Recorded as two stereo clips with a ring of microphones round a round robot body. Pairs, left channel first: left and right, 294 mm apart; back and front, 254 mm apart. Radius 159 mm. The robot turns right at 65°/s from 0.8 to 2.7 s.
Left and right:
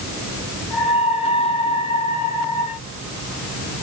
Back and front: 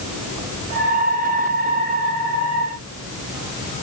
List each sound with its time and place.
Only background noise.